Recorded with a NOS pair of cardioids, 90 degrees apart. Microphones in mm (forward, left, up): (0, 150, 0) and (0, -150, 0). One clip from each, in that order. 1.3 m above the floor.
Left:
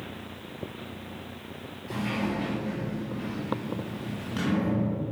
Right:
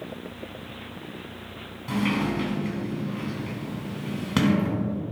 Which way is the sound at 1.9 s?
70° right.